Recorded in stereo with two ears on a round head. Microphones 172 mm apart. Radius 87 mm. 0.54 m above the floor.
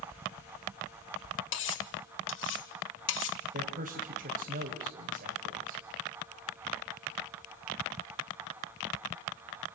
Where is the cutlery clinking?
70° left (ahead or behind), 1.3 m.